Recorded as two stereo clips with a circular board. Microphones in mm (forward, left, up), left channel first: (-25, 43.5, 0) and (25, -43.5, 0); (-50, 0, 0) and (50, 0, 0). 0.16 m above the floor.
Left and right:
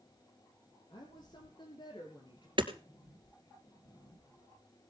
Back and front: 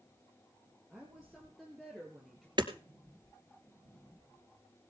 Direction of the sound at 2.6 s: 35° right.